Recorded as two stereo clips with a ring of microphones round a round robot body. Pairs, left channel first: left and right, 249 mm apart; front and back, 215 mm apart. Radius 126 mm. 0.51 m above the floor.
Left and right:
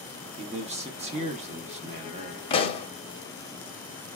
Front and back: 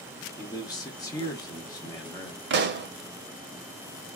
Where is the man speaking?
55° right, 0.7 m.